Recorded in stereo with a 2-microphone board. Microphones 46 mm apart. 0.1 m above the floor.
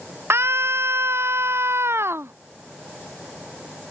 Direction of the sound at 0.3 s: 65° right (ahead or behind).